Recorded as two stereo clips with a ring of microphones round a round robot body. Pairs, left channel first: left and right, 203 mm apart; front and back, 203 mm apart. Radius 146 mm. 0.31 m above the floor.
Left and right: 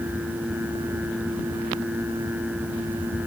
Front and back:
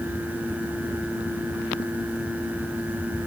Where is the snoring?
I don't hear snoring.